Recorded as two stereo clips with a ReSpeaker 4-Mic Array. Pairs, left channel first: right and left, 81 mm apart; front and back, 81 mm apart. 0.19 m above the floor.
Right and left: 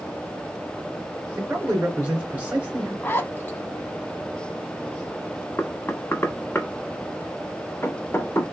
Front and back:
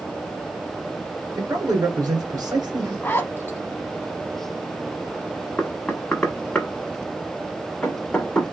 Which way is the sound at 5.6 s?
65° right.